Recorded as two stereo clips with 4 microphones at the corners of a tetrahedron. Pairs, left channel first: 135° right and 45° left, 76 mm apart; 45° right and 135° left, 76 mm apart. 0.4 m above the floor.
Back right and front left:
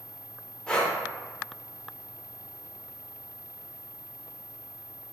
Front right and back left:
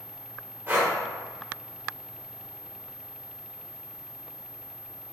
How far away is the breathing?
About 0.8 m.